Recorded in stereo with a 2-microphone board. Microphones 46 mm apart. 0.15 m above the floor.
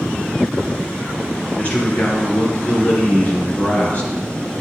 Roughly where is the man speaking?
Left.